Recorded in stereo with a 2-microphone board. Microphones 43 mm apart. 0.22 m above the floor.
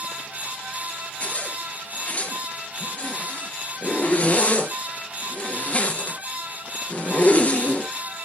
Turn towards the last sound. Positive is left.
turn(degrees=35)  # may be behind; listen again after turning